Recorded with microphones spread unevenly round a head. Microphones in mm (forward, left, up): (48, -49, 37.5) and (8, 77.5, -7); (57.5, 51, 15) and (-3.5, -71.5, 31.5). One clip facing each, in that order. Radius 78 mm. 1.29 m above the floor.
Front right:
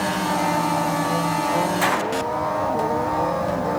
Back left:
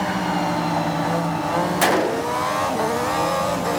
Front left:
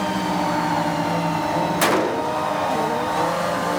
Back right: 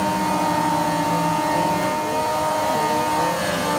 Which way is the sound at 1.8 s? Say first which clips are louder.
Back left 3 dB, front left 2 dB; 65° left.